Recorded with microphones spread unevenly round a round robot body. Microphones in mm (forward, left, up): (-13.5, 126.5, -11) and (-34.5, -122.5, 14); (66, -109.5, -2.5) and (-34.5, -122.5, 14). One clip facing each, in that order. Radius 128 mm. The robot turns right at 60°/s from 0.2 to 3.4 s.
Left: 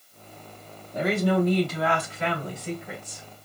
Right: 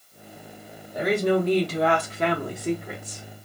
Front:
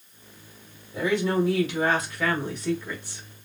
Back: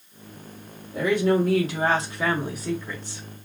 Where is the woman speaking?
Straight behind, 1.4 m; by 3.2 s 40° right, 1.4 m.